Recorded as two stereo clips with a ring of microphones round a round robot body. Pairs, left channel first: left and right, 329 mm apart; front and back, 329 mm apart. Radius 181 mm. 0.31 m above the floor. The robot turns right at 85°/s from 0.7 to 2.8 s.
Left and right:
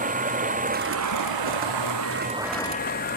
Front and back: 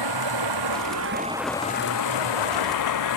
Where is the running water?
155° right; by 3.2 s 25° left.